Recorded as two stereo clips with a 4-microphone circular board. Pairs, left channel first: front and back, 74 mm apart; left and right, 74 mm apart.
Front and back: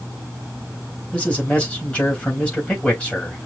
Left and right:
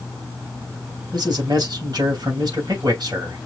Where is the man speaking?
70° right, 3 m.